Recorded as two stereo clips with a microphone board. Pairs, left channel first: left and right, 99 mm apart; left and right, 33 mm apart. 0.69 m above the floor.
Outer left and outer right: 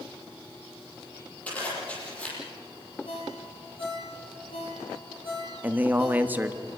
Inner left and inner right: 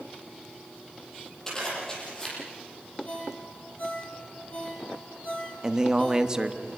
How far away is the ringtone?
About 9 m.